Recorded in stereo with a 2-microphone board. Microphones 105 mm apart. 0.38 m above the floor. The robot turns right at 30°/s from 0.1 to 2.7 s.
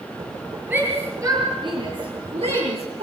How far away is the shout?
About 6.5 m.